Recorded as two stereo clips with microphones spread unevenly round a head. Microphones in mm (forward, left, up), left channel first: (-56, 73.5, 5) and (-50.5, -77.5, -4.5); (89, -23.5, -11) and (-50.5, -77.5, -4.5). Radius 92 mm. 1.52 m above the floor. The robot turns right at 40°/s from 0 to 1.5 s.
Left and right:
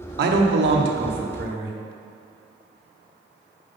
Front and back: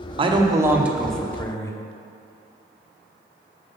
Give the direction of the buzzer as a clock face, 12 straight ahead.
No buzzer in this recording.